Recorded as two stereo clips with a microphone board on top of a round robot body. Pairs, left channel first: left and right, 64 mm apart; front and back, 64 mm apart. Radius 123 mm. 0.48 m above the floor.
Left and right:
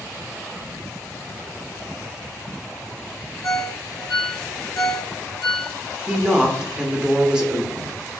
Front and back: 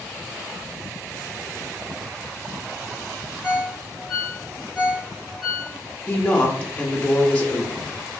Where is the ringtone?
85° left, 1.0 m.